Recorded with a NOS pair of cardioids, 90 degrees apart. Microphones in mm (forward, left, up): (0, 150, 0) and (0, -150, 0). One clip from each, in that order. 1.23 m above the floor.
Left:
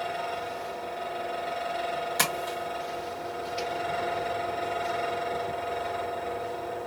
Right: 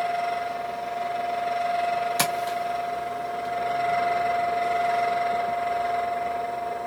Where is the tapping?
15° right, 1.4 m.